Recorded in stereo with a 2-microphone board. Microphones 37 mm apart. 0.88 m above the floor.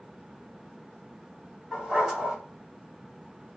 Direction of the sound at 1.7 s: 10° right (ahead or behind).